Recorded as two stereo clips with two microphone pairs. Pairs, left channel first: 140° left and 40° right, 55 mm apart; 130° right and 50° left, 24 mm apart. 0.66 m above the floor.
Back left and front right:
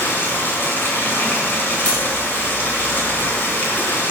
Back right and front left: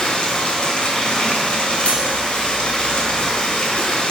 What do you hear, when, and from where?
0.0 s running water: 175° right, 2 m
1.9 s cutlery clinking: 160° right, 3 m